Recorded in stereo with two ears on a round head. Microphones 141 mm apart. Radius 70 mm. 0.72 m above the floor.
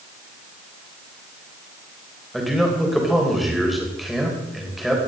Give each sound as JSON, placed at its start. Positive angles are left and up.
{"t": 2.3, "sound": "a man speaking", "side_deg": 0, "distance_m": 3.5}